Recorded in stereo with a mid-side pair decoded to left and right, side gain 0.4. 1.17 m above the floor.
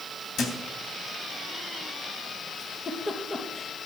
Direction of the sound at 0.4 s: 65° left.